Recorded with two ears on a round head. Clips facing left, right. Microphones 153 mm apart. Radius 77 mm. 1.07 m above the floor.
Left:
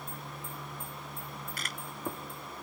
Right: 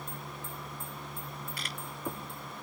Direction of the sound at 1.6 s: 40° left (ahead or behind).